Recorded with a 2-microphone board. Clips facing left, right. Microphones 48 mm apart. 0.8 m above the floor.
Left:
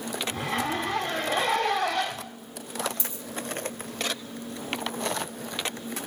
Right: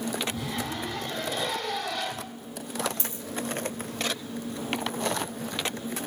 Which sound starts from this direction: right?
A dropped coin, at 3.0 s.